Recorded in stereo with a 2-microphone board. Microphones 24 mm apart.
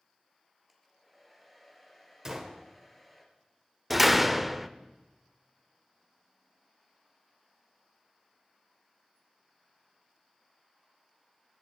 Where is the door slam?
5° right (ahead or behind), 0.6 m.